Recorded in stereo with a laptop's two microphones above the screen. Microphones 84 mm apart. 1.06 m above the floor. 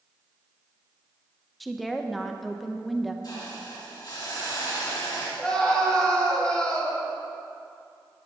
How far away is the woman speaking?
About 0.7 m.